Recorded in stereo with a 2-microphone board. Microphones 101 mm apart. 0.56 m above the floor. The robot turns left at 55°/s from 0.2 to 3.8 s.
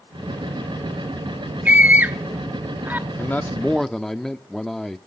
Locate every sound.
1.6 s a scream: 15° right (ahead or behind), 1.2 m; by 3.0 s 20° right (ahead or behind), 1.2 m
3.2 s a man speaking: 40° left, 1.0 m; by 5.0 s 10° left, 1.0 m